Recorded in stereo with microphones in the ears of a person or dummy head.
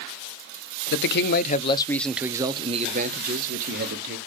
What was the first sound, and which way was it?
A man speaking, 65° left (ahead or behind).